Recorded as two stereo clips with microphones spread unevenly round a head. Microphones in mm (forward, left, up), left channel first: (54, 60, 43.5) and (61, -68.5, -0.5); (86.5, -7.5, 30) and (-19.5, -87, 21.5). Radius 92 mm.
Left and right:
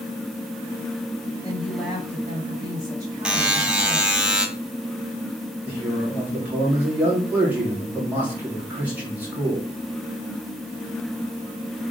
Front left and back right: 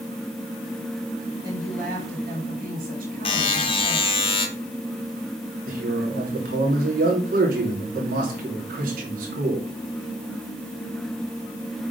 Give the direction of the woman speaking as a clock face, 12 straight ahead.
5 o'clock.